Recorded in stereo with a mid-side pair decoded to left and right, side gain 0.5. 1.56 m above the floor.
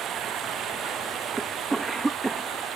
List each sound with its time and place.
0.0 s running water: 60° right
1.4 s a cough: 15° right